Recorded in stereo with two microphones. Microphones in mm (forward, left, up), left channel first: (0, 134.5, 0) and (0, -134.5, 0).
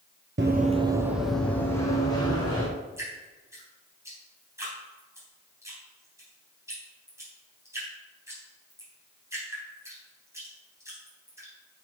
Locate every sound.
0.4 s running footsteps: 45° right (ahead or behind), 0.8 m; by 2.7 s 20° left (ahead or behind), 2.5 m
3.0 s dripping: 10° right (ahead or behind), 4 m